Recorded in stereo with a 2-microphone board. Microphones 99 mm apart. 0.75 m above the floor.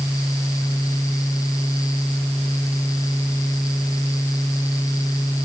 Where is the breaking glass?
I don't hear breaking glass.